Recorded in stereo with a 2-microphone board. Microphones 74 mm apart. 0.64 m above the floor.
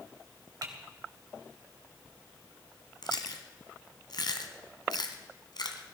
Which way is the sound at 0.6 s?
60° right (ahead or behind).